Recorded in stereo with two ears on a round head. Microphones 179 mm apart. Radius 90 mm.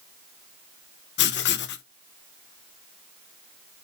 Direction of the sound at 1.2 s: 60° left (ahead or behind).